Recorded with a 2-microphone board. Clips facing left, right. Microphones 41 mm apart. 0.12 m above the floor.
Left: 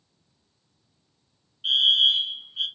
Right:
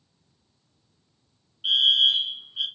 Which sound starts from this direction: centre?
A fire alarm, at 1.6 s.